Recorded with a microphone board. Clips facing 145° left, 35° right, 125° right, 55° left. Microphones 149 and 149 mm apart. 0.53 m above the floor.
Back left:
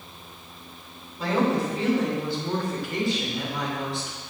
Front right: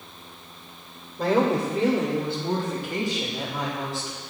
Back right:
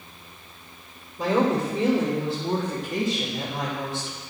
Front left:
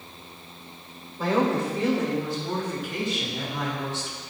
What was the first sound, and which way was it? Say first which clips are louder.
A woman speaking: front right 2 dB, back right 1 dB; 55° right.